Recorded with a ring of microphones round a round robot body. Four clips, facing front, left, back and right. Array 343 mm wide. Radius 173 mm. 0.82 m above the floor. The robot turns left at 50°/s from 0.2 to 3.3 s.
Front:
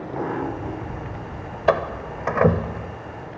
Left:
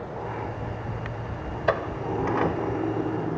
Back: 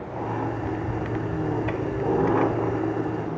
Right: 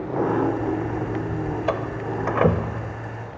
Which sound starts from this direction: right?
An engine running, at 0.0 s.